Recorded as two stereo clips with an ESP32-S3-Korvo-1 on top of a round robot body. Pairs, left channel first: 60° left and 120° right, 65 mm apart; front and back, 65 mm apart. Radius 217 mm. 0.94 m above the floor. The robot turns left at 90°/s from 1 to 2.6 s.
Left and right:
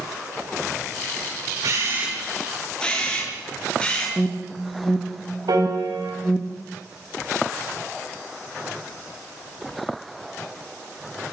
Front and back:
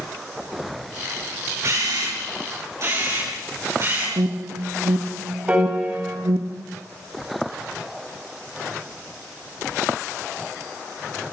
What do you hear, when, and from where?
1.6 s a camera shutter: 135° right, 7.5 m; by 4.1 s 135° left, 7.5 m
4.2 s an alarm: 140° left, 1.6 m
5.5 s a piano: 110° right, 4.5 m